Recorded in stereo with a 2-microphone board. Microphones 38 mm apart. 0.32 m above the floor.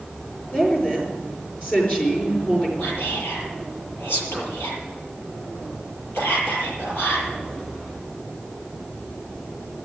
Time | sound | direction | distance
0.5 | a woman speaking | 40° left (ahead or behind) | 6 m
2.8 | whispering | 75° left (ahead or behind) | 7.5 m